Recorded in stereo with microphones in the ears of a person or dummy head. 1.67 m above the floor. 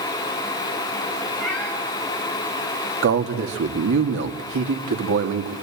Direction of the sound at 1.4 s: 5° left (ahead or behind).